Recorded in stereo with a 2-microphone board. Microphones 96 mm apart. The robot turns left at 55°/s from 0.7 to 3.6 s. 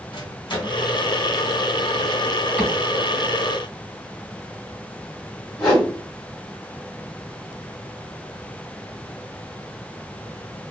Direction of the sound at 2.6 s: 15° right (ahead or behind).